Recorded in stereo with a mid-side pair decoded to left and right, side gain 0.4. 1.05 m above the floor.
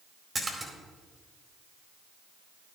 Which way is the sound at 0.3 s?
25° right.